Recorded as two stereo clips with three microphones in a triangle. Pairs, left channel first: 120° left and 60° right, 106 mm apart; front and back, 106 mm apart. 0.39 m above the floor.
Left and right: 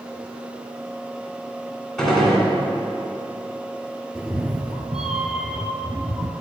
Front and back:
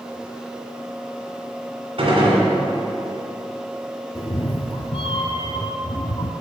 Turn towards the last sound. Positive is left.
turn(degrees=25)